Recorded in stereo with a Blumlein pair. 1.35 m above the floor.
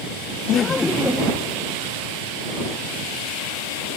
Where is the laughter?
35° left; by 1.6 s 10° right.